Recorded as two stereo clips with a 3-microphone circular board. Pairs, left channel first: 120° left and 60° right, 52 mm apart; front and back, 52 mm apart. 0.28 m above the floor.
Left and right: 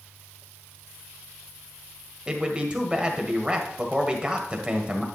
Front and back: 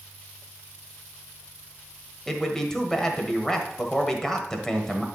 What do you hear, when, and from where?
2.3 s a man speaking: 60° right, 1.2 m